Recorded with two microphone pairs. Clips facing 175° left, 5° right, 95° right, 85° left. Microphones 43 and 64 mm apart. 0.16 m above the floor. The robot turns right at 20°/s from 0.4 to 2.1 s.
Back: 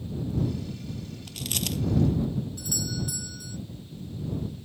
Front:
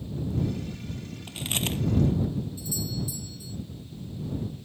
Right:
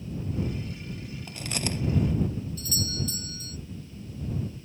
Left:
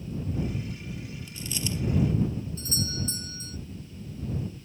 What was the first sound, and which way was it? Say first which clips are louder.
Chewing: front 2 dB, right 2 dB; 75° right.